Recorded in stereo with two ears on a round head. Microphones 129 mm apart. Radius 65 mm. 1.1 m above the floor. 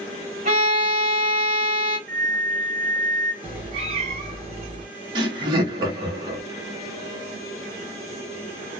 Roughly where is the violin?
Right.